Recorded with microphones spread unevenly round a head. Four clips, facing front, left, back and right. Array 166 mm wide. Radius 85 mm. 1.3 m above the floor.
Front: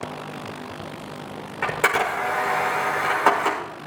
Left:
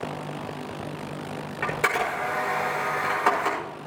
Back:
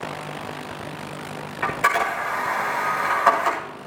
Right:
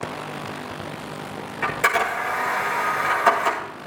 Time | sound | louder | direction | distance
1.6 | a camera shutter | right 4 dB, back 1 dB | 10° left | 5.5 m